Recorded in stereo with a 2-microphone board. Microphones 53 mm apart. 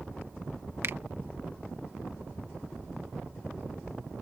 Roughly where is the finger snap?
Right.